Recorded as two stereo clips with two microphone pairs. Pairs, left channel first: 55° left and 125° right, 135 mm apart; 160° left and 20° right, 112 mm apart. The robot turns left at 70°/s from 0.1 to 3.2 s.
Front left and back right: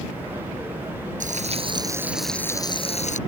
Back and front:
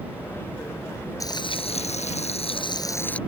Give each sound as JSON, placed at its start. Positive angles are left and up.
{"t": 1.2, "sound": "frying", "azimuth_deg": -145}